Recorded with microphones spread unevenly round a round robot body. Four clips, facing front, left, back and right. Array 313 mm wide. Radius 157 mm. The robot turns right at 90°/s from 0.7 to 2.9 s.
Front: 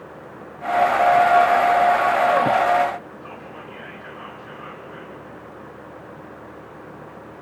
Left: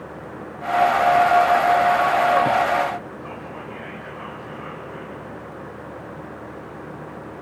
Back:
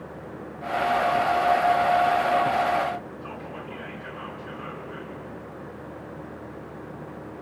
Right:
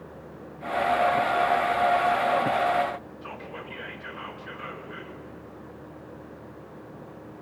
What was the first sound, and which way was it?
Whispering, 110° right.